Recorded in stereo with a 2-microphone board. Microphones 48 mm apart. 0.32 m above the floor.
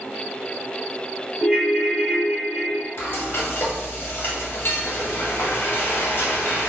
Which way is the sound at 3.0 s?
55° left (ahead or behind).